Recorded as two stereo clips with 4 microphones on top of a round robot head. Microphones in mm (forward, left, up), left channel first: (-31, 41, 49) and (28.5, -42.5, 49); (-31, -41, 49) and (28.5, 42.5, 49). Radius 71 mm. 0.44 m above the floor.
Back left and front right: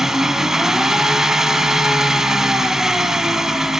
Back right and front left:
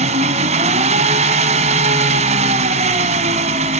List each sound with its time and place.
0.0 s an engine running: 30° left, 1.0 m